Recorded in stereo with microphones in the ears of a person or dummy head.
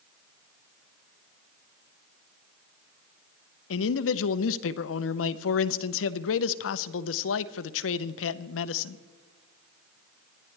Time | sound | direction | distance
3.7 | a man speaking | 70° left (ahead or behind) | 0.7 m